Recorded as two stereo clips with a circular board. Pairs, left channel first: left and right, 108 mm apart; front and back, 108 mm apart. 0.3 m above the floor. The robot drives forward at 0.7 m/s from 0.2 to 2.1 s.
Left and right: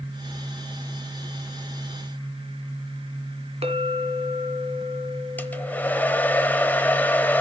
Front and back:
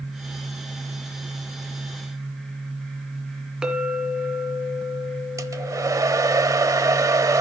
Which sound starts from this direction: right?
A clink, at 3.6 s.